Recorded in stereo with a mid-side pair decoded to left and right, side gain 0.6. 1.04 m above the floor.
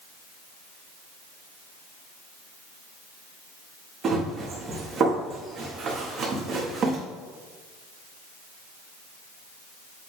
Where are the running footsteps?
40° right, 3.5 m.